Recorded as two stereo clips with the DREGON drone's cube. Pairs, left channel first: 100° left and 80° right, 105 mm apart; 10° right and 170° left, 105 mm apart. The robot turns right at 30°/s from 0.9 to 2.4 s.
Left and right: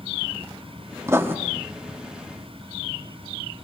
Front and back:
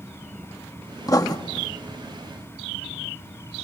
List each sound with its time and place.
1.1 s writing: 35° right, 1.2 m; by 1.4 s 30° right, 1.2 m